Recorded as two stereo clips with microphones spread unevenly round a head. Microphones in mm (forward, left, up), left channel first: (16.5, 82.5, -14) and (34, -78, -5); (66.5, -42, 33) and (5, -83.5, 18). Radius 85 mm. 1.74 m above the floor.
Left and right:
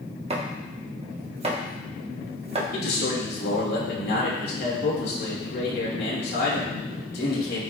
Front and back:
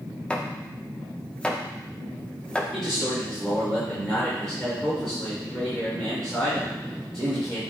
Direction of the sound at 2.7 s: 125° left.